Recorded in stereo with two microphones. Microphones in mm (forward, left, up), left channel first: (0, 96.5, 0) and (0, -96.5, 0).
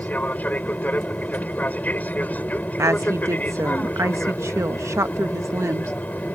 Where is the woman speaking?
15° right (ahead or behind).